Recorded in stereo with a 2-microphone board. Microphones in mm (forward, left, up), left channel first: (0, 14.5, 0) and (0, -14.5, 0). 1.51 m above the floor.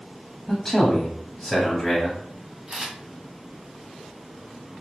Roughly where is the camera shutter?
Right.